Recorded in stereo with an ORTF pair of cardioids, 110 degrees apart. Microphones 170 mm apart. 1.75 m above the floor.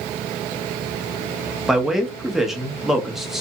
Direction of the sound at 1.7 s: Straight ahead.